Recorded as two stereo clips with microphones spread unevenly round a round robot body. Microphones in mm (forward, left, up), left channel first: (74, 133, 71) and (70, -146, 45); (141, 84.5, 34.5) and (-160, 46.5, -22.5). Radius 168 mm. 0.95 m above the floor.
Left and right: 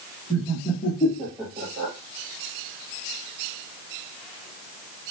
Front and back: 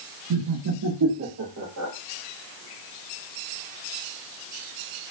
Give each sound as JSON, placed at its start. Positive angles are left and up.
{"t": 0.3, "sound": "laughter", "azimuth_deg": 150, "distance_m": 1.1}